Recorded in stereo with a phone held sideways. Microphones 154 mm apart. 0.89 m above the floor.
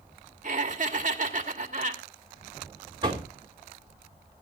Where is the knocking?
30° right (ahead or behind), 2.5 m.